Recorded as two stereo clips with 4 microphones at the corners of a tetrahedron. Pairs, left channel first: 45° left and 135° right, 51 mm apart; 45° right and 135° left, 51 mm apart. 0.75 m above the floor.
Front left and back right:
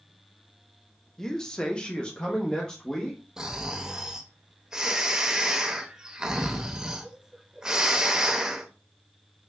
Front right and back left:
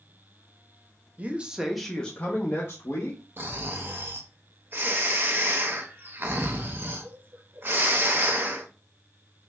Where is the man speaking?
115° left, 0.7 m; by 3.2 s 25° right, 1.2 m.